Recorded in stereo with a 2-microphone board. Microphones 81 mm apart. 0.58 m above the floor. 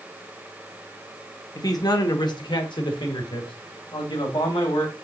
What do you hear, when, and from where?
1.6 s a man speaking: 50° left (ahead or behind), 1.1 m; by 4.9 s 75° left (ahead or behind), 3 m